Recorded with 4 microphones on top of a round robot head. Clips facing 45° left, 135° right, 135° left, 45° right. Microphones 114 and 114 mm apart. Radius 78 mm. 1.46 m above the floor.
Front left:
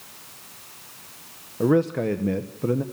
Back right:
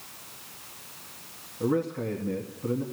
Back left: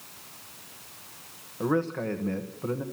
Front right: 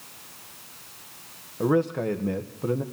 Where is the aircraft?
I don't hear an aircraft.